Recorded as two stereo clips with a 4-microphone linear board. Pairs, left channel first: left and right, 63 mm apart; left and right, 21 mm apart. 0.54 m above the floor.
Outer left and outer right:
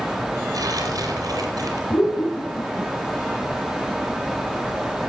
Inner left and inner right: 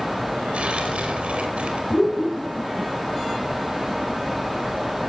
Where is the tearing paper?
75° right (ahead or behind), 5 m.